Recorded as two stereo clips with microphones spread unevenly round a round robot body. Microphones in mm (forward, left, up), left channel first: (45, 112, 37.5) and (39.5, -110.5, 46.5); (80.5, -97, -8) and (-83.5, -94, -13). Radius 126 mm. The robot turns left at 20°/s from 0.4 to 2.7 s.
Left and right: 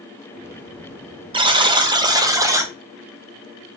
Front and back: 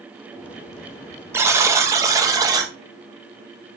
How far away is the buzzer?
About 0.7 m.